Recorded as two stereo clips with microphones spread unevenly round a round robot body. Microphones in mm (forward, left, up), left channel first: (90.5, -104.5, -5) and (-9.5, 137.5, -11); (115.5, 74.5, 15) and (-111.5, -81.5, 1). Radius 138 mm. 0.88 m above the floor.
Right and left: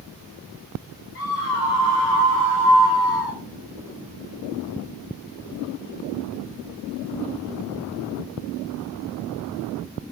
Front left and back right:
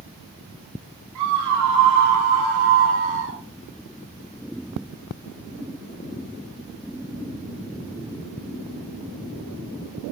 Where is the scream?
120° right, 5.5 m; by 3.4 s 95° right, 3.5 m.